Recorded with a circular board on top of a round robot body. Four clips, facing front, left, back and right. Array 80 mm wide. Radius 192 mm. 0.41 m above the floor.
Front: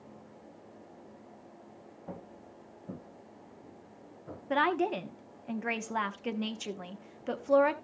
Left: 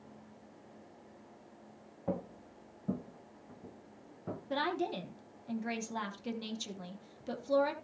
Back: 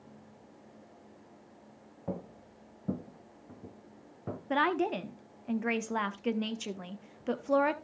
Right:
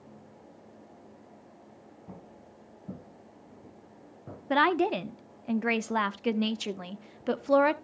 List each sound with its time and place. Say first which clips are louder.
2.1 s footsteps: left 12 dB, back 6 dB; 120° left, 0.8 m; by 4.4 s 175° left, 2.5 m
4.5 s a woman speaking: right 10 dB, front 1 dB; 90° right, 1.0 m